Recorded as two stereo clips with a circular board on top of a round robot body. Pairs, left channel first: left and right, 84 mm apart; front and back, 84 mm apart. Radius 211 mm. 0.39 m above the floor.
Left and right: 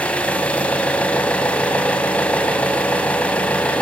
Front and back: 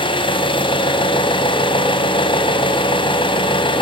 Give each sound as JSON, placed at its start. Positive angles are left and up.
{"t": 0.0, "sound": "an engine running", "azimuth_deg": 15, "distance_m": 2.5}